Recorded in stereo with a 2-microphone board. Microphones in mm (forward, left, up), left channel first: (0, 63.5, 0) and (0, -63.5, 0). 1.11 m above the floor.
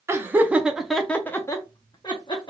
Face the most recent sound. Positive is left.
turn(degrees=40)  # may be behind; listen again after turning